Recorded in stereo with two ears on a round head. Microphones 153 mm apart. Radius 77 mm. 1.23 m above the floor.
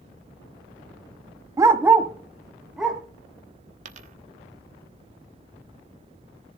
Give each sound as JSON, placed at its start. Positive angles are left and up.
{"t": 1.6, "sound": "a dog barking", "side_deg": -20, "distance_m": 0.6}
{"t": 3.9, "sound": "a dropped coin", "side_deg": -45, "distance_m": 1.1}